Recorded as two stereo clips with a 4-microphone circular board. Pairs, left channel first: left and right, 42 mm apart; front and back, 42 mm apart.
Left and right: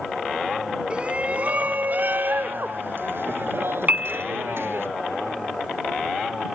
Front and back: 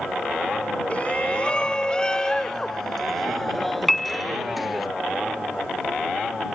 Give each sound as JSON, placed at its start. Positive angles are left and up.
{"t": 0.9, "sound": "a shout", "azimuth_deg": -40}
{"t": 3.9, "sound": "a piano", "azimuth_deg": -90}